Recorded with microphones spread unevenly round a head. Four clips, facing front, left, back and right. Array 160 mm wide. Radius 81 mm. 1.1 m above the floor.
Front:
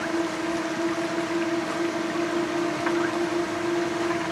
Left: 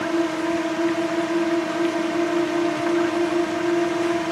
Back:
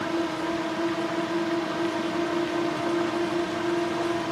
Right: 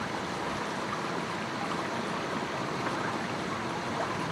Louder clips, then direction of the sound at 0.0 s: Left 12 dB, front 1 dB; 90° left.